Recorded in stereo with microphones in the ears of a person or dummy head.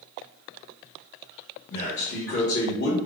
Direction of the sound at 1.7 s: 55° left (ahead or behind).